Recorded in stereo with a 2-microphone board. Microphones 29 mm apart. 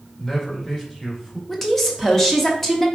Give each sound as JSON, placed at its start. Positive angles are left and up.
{"t": 0.2, "sound": "a man speaking", "side_deg": 20, "distance_m": 1.7}
{"t": 1.5, "sound": "a woman speaking", "side_deg": 10, "distance_m": 1.0}